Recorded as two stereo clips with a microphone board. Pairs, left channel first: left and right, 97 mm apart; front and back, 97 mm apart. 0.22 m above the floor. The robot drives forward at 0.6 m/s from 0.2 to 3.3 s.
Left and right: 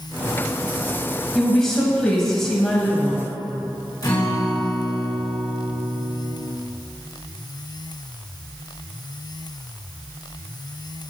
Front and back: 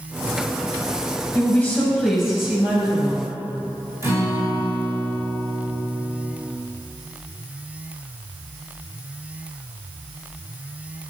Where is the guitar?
130° left, 2.5 m.